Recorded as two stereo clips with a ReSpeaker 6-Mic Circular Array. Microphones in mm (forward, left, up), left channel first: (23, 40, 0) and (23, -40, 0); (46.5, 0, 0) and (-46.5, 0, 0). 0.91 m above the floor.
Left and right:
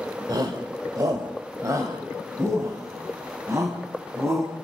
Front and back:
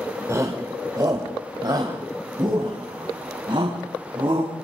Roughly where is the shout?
Behind right.